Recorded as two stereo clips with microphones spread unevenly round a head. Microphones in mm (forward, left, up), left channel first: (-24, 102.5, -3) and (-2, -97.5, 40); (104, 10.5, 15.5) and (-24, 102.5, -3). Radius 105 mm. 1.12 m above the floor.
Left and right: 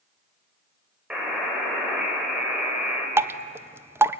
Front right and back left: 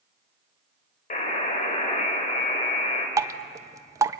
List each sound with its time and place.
1.1 s a buzzer: straight ahead, 5 m
3.2 s dripping: 170° right, 0.5 m